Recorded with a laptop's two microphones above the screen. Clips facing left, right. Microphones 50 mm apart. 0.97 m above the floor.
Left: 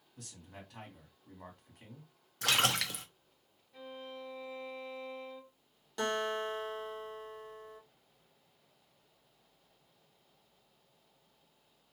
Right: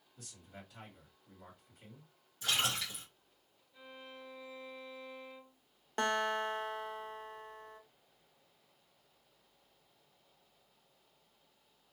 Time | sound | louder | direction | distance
0.2 | a man speaking | left 2 dB | 65° left (ahead or behind) | 1.9 m
2.4 | a splash | left 4 dB | 70° left (ahead or behind) | 0.5 m
3.7 | a violin | left 6 dB | 75° left (ahead or behind) | 1.7 m
6.0 | a guitar | right 1 dB | 40° right (ahead or behind) | 0.7 m